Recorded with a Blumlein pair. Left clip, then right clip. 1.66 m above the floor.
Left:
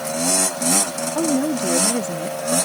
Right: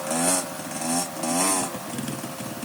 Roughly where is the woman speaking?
Ahead left.